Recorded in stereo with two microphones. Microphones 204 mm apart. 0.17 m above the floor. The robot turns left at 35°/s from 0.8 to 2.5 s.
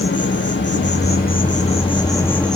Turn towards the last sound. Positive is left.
turn(degrees=5)